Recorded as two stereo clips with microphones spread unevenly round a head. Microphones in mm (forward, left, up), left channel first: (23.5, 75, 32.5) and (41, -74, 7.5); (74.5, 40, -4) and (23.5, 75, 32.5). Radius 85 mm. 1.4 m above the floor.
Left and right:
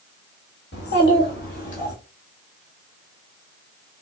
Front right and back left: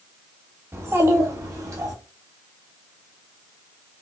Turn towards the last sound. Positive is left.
turn(degrees=145)